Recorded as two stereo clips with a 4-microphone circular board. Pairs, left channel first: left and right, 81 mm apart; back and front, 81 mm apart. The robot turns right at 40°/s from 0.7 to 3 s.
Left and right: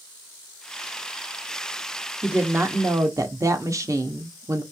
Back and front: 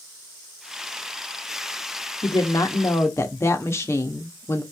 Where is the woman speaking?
160° right, 0.9 m; by 4.6 s 130° right, 0.9 m.